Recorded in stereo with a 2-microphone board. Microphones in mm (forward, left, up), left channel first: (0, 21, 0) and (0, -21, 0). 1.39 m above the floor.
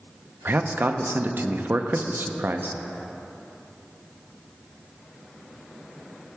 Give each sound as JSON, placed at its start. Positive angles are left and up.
{"t": 0.5, "sound": "a man speaking", "side_deg": -55, "distance_m": 0.6}